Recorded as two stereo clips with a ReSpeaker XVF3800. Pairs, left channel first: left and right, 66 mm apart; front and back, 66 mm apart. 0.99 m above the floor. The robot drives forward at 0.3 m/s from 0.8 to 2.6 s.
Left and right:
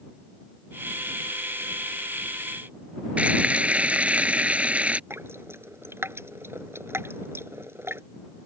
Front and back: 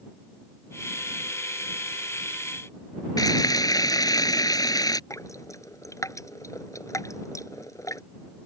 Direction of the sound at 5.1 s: 35° right.